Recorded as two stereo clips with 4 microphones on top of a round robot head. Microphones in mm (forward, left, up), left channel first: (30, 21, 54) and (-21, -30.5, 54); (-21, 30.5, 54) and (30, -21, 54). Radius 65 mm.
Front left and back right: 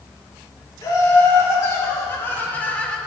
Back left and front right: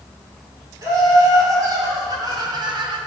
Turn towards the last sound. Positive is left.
turn(degrees=-30)